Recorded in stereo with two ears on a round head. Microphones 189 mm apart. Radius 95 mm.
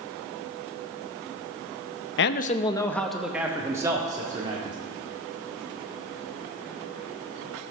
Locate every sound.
2.2 s a man speaking: 55° left (ahead or behind), 0.6 m; by 4.8 s 25° right (ahead or behind), 2 m